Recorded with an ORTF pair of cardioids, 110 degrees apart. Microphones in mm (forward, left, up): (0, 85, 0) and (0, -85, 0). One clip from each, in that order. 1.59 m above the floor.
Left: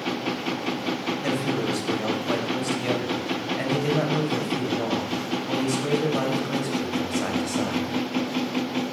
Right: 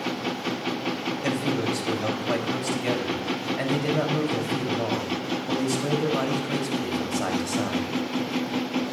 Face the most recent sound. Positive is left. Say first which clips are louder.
# right 1 dB
turn(degrees=-15)